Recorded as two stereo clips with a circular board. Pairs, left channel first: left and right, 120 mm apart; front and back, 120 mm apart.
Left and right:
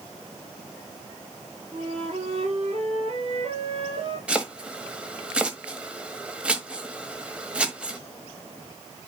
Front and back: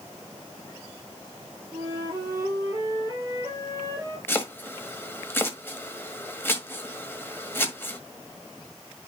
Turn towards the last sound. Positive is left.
turn(degrees=-30)